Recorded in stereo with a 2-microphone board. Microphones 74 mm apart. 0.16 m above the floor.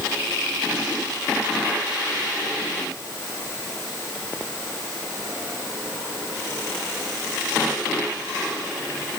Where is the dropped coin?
I don't hear a dropped coin.